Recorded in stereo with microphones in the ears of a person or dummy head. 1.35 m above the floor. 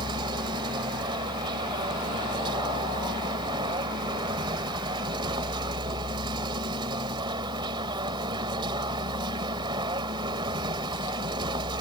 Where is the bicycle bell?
I don't hear a bicycle bell.